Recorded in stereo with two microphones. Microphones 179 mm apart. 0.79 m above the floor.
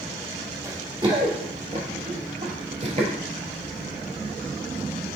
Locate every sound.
0.6 s running footsteps: 20° right (ahead or behind), 1.3 m; by 3.1 s 35° right (ahead or behind), 1.2 m